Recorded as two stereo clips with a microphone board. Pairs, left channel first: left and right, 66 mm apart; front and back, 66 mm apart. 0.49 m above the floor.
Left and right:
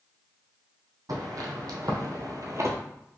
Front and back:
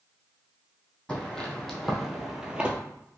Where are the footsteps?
80° right, 1.4 m; by 2.8 s 115° right, 0.7 m.